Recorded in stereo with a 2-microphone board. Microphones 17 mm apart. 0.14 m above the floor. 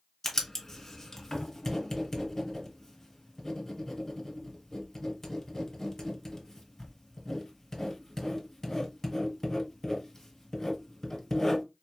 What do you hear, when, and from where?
0.2 s writing: 30° left (ahead or behind), 1.8 m